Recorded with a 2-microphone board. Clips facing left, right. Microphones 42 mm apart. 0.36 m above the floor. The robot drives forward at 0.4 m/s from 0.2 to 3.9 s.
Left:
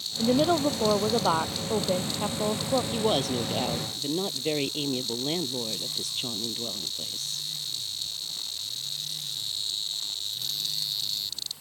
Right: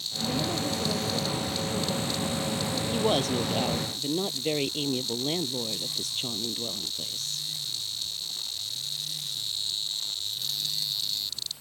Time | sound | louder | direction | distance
0.2 | a woman speaking | left 7 dB | 80° left | ?
2.9 | a woman speaking | even | centre (ahead or behind) | ?